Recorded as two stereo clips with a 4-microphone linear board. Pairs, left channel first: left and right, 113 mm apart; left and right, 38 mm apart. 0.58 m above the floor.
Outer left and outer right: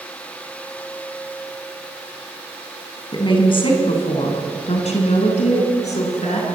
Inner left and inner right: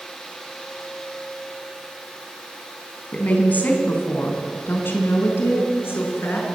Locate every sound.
3.1 s a woman speaking: 40° left (ahead or behind), 4.5 m; by 6.5 s 85° left, 6.5 m